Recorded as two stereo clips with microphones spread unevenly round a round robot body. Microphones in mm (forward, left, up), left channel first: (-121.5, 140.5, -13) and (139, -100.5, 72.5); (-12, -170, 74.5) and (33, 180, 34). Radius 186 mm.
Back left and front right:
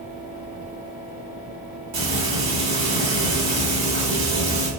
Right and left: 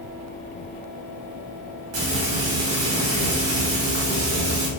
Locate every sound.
1.9 s frying: 35° left, 1.8 m